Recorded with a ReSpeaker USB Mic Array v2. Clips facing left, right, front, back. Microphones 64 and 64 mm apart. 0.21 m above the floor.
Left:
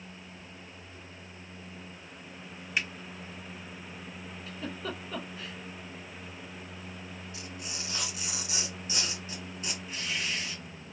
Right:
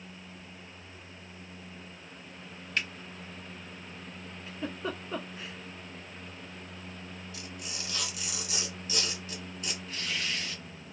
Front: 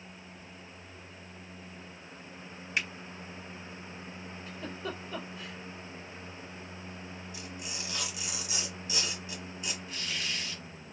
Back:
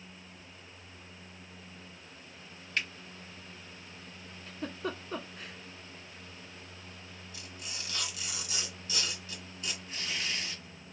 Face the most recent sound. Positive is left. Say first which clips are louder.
# left 1 dB, back 1 dB
turn(degrees=165)